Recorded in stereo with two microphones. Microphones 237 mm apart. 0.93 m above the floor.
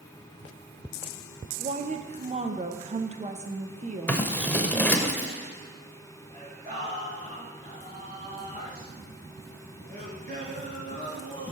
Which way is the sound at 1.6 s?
30° right (ahead or behind).